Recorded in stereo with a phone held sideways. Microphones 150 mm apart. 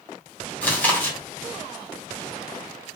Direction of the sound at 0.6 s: 10° left (ahead or behind).